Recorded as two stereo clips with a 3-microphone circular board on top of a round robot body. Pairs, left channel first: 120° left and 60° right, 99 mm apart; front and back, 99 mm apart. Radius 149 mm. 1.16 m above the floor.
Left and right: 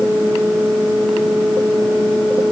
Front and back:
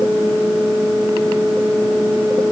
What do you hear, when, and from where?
Only background noise.